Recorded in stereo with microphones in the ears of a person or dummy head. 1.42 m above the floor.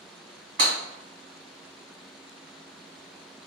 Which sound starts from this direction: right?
Breaking glass, at 0.6 s.